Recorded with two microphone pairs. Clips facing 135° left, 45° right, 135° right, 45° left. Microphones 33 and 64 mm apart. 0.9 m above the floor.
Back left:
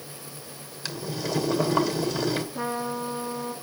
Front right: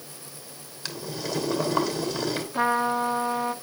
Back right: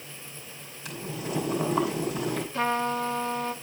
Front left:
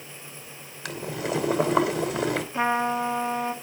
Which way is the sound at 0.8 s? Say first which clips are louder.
Back left 1 dB, front left 5 dB; 45° left.